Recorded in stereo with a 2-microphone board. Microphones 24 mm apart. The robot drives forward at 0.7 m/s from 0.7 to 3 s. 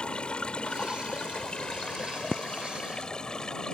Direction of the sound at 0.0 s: 45° left (ahead or behind).